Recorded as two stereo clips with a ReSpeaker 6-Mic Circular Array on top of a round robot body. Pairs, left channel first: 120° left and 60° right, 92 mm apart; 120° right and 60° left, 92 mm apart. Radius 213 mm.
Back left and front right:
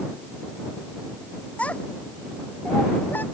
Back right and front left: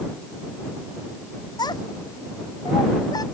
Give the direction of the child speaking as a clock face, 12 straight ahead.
5 o'clock.